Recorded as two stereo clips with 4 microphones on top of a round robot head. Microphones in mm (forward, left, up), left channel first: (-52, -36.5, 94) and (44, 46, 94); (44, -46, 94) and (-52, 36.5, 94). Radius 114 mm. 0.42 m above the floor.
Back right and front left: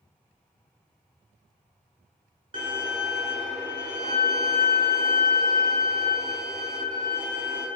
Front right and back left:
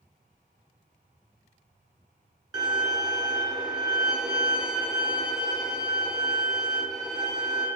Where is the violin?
85° left, 1.2 m.